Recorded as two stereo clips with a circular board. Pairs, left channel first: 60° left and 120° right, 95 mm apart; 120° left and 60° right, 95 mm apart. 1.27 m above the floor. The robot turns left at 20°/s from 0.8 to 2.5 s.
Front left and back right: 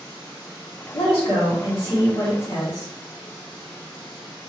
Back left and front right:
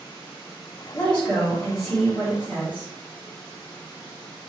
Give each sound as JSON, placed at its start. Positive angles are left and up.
{"t": 0.9, "sound": "a woman speaking", "azimuth_deg": 50, "distance_m": 1.8}